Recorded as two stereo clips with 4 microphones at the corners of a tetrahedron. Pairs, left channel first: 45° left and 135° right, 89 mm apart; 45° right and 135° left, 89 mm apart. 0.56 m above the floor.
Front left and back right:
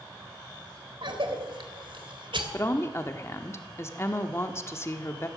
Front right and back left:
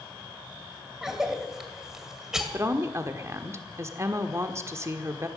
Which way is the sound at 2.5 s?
90° left.